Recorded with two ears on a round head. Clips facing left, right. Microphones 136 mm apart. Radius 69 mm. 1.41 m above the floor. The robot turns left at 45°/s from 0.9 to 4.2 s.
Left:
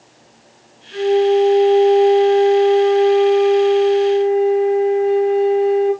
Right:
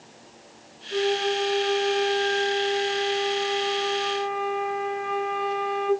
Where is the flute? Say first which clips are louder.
Left 11 dB; 70° right, 1.4 m; by 5.9 s 145° left, 1.4 m.